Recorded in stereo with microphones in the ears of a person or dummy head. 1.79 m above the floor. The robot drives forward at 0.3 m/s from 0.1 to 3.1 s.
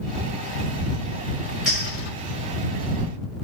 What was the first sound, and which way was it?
A clink, centre (ahead or behind).